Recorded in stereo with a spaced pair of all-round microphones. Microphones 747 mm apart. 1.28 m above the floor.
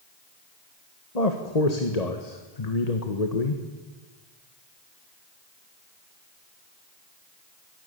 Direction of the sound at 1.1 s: 55° left (ahead or behind).